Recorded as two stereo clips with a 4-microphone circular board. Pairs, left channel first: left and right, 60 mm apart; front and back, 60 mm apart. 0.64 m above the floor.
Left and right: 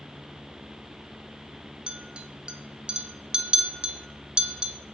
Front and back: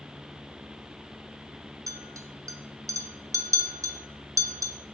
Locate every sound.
1.9 s a clink: 165° right, 0.5 m